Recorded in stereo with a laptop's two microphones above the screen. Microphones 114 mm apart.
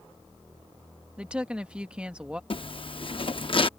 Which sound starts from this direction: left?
A zipper, at 2.5 s.